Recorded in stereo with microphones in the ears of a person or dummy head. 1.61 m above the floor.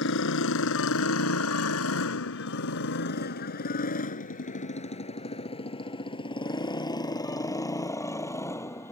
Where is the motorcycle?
70° left (ahead or behind); by 8.9 s 10° left (ahead or behind).